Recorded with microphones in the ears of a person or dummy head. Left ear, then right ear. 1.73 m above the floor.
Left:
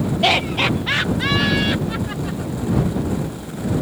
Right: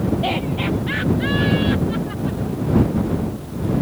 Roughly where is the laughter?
Left.